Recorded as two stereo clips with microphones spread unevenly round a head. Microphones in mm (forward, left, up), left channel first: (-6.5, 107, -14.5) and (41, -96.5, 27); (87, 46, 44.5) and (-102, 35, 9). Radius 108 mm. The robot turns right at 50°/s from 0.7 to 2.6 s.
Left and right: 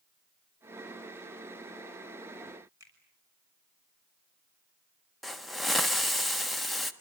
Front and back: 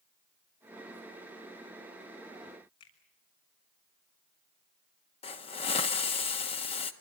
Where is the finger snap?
Straight ahead, 6.5 m.